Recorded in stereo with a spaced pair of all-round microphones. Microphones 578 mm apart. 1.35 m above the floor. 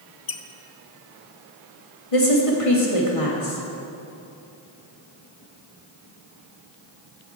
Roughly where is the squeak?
Left.